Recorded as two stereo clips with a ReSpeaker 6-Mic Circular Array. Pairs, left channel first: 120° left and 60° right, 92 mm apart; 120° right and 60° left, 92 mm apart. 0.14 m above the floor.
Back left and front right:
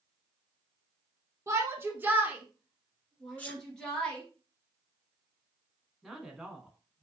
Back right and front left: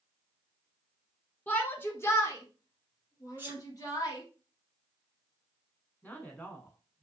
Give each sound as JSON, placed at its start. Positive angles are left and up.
{"t": 1.5, "sound": "a shout", "azimuth_deg": -65, "distance_m": 1.2}
{"t": 3.4, "sound": "a sneeze", "azimuth_deg": 80, "distance_m": 1.3}
{"t": 6.0, "sound": "a woman speaking", "azimuth_deg": -140, "distance_m": 1.0}